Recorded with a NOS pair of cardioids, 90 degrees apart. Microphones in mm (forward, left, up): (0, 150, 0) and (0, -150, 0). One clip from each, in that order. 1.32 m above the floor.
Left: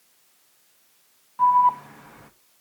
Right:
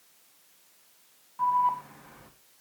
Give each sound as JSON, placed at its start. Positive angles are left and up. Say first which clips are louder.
{"t": 1.4, "sound": "an alarm", "louder": "left 7 dB", "azimuth_deg": 35, "distance_m": 2.0}